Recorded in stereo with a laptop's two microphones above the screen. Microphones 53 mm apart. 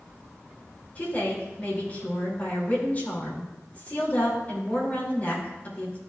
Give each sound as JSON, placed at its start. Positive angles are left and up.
{"t": 0.9, "sound": "a woman speaking", "side_deg": 30, "distance_m": 2.5}